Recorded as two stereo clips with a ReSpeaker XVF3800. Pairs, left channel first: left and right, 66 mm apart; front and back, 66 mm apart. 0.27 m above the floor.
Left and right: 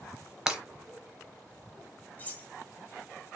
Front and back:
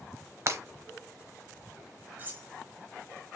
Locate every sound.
0.5 s breaking glass: 165° right, 0.8 m
2.2 s cutlery clinking: 140° left, 0.9 m